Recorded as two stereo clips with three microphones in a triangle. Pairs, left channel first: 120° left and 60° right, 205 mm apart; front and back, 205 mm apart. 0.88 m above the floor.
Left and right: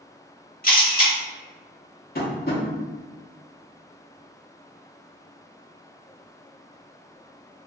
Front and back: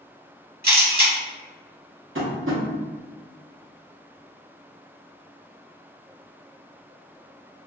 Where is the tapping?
165° left, 0.7 m.